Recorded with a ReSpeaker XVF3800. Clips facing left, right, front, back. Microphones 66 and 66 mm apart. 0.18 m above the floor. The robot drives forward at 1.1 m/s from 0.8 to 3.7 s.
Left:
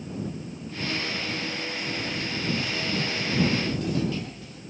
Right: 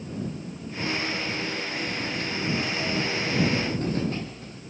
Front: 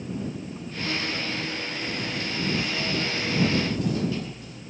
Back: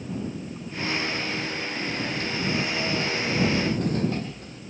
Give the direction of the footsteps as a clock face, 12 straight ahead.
4 o'clock.